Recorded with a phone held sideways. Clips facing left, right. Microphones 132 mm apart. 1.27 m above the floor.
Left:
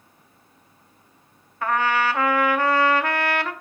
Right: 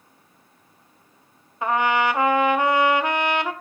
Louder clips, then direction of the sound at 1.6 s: Right 1 dB; 20° right (ahead or behind).